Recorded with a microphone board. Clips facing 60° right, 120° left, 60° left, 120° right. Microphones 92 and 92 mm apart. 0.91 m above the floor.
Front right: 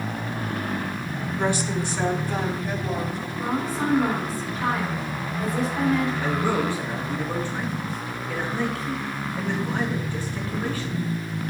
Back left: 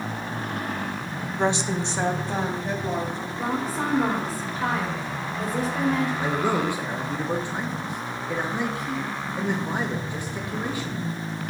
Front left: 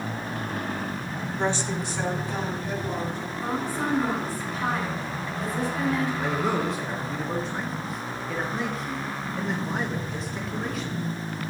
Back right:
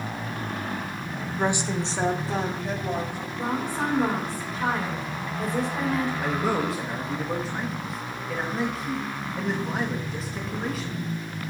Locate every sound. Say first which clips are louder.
1.4 s a woman speaking: back left 1 dB, back right 2 dB; 165° left, 0.5 m; by 3.3 s 175° right, 2 m
3.4 s a woman speaking: front right 1 dB, back right 2 dB; 175° left, 2.5 m
6.2 s a man speaking: even, even; 155° left, 0.8 m